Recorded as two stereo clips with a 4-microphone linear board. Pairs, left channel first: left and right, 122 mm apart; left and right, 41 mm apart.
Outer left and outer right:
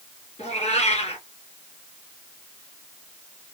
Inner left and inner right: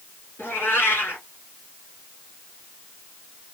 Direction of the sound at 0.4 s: 60° left (ahead or behind).